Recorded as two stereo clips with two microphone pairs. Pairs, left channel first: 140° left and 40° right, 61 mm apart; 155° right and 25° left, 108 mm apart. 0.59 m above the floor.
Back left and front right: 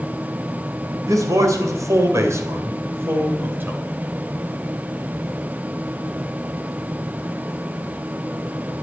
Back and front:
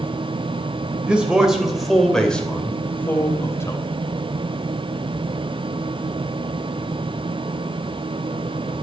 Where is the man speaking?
55° right, 3 m; by 3.8 s 95° right, 3 m.